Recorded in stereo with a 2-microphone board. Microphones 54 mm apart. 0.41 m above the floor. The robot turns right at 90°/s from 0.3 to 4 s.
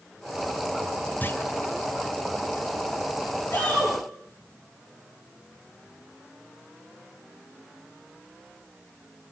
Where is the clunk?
35° left (ahead or behind), 1.3 m; by 1.4 s 55° left (ahead or behind), 1.3 m.